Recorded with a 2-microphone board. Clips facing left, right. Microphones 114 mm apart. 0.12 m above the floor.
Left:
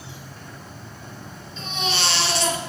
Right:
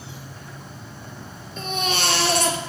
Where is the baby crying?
50° right (ahead or behind), 2 m.